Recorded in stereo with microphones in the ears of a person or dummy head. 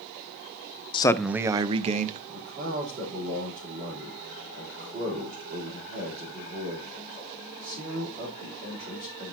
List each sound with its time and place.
0.9 s a man speaking: 25° left (ahead or behind), 0.6 m; by 2.2 s 45° right (ahead or behind), 1.3 m
2.3 s a man speaking: 25° right (ahead or behind), 4 m